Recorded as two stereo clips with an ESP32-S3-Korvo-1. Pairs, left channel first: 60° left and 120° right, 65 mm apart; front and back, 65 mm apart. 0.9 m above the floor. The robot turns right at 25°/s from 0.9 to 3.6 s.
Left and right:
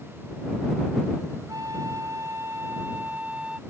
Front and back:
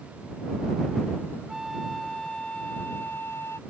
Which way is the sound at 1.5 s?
100° right.